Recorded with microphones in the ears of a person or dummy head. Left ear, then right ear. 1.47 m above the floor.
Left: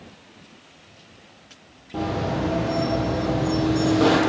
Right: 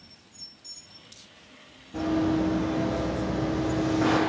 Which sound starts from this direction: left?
Running footsteps, at 1.9 s.